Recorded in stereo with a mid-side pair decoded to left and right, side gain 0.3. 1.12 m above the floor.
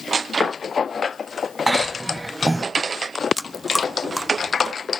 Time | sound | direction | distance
1.7 | a cough | 25° right | 0.7 m
3.4 | chewing | 15° left | 1.2 m